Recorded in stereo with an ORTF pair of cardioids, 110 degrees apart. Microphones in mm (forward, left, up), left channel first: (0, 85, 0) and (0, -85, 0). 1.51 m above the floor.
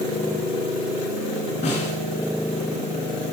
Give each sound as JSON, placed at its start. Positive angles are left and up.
{"t": 1.6, "sound": "a snare drum", "azimuth_deg": 45, "distance_m": 8.0}